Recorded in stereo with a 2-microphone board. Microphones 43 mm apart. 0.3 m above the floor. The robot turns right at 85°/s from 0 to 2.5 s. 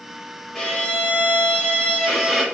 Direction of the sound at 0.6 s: 30° left.